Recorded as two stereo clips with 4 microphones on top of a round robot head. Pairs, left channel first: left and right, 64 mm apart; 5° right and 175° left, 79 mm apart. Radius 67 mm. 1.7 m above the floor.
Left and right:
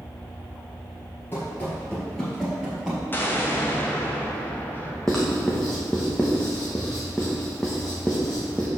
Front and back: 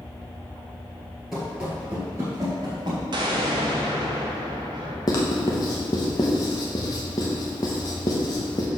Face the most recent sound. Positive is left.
turn(degrees=10)